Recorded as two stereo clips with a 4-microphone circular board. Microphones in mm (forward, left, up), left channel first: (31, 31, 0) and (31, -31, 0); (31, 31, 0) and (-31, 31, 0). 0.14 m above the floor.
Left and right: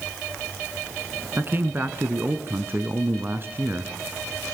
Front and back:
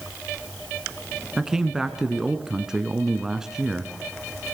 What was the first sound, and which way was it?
A man speaking, 105° right.